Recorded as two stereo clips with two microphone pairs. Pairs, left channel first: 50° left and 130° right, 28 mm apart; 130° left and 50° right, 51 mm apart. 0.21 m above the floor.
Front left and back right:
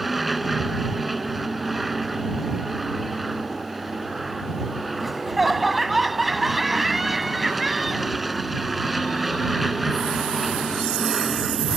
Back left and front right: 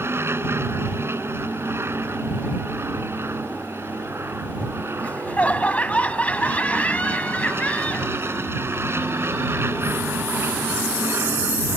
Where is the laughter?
145° left.